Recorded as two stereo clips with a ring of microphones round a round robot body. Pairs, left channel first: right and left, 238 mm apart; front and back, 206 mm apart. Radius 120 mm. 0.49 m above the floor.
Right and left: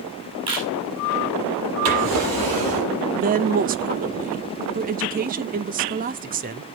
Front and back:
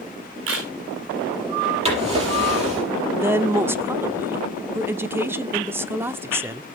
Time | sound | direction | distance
0.5 | a camera shutter | 160° left | 6.5 m
1.9 | a drawer | 120° left | 7 m
3.1 | a woman speaking | 110° left | 0.9 m